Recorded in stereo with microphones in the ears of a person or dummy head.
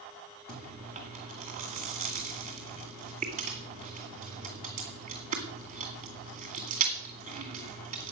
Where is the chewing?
35° right (ahead or behind), 2 m.